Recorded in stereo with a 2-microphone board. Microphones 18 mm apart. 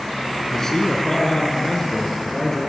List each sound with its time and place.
0.5 s a man speaking: 20° left (ahead or behind), 5 m